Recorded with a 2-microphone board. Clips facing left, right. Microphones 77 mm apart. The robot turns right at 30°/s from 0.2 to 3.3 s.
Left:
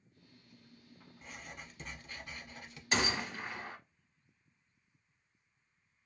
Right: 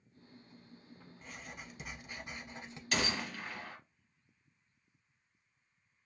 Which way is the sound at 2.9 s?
25° left (ahead or behind).